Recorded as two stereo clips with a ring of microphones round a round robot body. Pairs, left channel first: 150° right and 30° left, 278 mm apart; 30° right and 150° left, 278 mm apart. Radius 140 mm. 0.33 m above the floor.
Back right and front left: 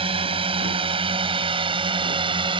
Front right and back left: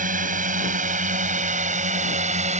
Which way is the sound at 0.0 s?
95° left.